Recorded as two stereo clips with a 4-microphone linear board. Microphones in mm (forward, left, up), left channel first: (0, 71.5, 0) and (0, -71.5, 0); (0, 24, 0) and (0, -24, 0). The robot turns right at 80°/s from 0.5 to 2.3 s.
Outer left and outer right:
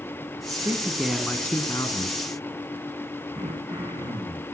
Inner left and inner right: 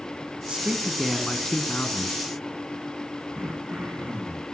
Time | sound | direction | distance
0.5 | a man speaking | 50° right | 1.7 m
3.3 | throat clearing | 30° right (ahead or behind) | 7.5 m